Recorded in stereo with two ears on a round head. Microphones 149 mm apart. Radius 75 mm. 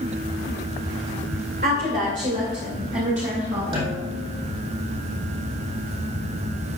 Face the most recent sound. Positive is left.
turn(degrees=-30)  # may be behind; listen again after turning